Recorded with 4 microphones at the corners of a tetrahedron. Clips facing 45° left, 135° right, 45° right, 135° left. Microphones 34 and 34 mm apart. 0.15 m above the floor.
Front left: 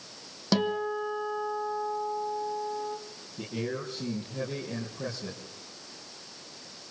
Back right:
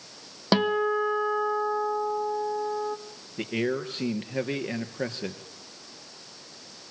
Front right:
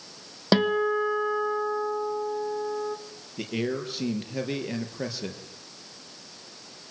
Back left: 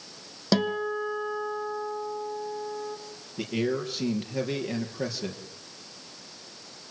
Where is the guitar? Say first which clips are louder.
Back right 5 dB, front right 4 dB; 95° right, 1.5 m.